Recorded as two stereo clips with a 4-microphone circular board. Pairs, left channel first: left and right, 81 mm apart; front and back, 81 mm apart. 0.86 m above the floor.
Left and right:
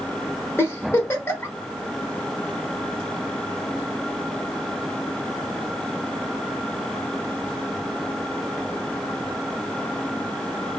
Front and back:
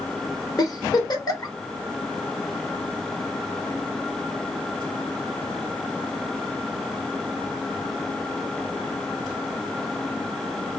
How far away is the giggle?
About 1.2 m.